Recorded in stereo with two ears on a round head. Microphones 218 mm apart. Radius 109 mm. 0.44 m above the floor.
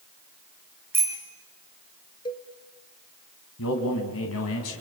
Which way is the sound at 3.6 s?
65° left (ahead or behind).